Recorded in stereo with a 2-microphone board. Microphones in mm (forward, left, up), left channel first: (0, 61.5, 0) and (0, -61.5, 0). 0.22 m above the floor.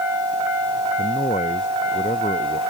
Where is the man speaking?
85° left; by 2.6 s 80° left.